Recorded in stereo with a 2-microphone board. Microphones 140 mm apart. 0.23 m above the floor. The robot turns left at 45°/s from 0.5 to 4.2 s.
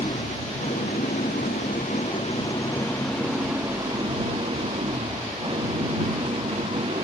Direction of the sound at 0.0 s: 125° left.